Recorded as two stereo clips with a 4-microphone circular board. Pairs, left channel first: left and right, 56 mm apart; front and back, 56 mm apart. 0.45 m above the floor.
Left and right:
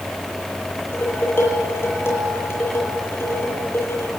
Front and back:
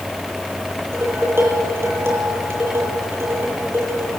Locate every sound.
0.9 s dishes clattering: 135° left, 9 m